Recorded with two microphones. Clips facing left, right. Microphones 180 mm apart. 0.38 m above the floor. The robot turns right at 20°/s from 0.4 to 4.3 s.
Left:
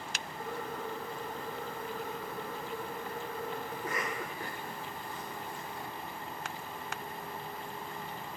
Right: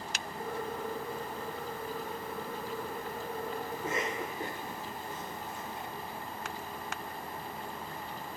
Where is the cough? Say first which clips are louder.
Right 2 dB; 25° right (ahead or behind), 1.0 m; by 5.9 s 20° right (ahead or behind), 1.0 m.